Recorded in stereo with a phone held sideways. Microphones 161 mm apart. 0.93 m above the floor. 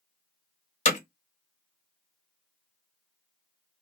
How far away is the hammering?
About 0.9 m.